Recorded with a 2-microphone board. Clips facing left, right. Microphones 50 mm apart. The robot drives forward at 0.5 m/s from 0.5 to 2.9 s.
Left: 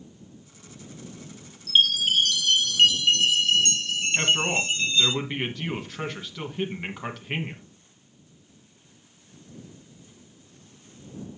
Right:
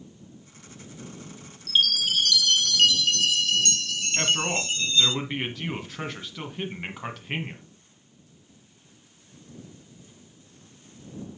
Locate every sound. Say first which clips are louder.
1.7 s a chime: left 3 dB; 35° left (ahead or behind), 0.5 m; by 5.2 s 25° left (ahead or behind), 0.8 m
4.2 s a man speaking: left 2 dB; centre (ahead or behind), 1.3 m